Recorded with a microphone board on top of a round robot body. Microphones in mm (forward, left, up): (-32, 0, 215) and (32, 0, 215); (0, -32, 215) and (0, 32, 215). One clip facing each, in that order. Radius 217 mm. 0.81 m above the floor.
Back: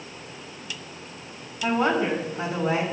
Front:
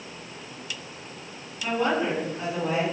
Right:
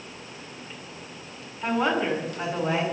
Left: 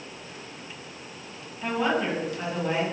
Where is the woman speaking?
175° right, 8 m.